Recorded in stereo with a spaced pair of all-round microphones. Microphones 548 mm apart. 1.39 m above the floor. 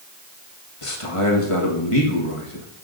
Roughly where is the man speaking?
Left.